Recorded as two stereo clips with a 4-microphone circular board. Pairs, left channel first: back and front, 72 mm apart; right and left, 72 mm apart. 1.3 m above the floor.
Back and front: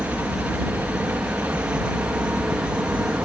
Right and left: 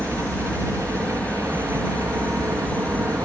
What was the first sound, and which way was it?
A helicopter, 50° left.